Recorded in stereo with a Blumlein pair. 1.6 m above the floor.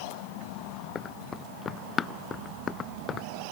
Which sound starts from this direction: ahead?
Running footsteps, at 0.9 s.